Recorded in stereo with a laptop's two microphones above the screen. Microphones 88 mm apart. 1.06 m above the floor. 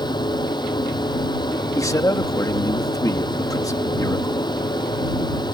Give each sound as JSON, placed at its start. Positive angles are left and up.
{"t": 0.0, "sound": "a fan", "side_deg": 55}
{"t": 1.8, "sound": "a man speaking", "side_deg": 40}